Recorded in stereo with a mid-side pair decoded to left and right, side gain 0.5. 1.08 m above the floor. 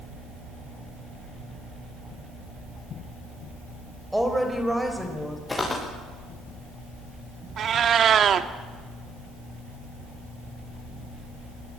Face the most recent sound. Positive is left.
turn(degrees=-50)